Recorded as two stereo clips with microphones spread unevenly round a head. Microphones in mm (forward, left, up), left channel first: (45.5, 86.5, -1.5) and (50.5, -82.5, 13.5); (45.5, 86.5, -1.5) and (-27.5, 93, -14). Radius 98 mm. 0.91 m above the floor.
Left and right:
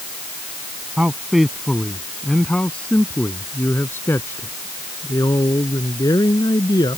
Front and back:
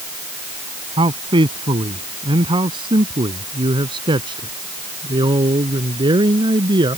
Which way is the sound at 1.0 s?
175° right.